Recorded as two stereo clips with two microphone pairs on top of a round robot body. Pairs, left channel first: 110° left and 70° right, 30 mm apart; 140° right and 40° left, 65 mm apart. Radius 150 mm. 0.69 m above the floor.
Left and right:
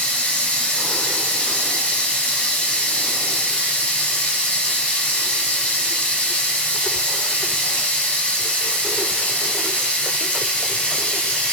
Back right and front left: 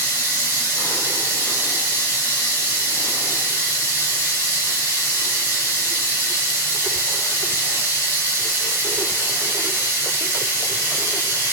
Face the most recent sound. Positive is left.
turn(degrees=100)